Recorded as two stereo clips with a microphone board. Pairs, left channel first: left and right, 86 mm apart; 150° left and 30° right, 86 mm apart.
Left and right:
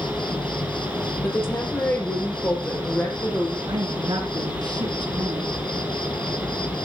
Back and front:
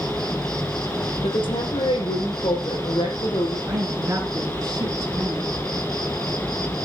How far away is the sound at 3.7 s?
About 2.5 m.